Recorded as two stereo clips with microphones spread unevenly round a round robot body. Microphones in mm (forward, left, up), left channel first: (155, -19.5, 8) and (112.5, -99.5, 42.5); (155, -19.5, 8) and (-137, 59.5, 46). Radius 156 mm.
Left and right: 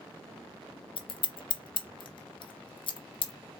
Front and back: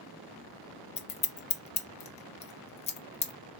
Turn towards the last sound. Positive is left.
turn(degrees=55)